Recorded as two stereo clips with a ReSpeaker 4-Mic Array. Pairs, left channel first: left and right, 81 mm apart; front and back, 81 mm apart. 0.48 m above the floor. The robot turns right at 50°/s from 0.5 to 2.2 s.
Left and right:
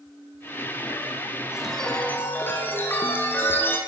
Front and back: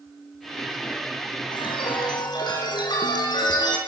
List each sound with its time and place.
1.5 s a chime: 10° right, 7 m; by 3.8 s 25° left, 7 m